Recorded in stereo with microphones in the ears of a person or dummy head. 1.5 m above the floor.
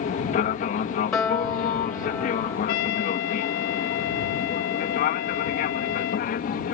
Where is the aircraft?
35° left (ahead or behind); by 6.8 s 40° left (ahead or behind).